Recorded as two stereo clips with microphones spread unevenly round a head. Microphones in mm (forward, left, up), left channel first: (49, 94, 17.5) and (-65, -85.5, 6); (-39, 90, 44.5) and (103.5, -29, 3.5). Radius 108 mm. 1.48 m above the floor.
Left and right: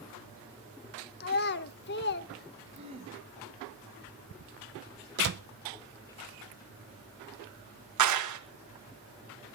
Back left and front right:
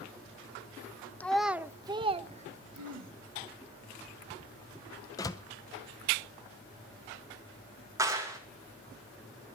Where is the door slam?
155° right, 0.7 m.